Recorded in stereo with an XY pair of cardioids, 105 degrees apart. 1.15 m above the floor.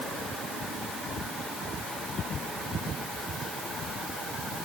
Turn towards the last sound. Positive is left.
No sound to turn to.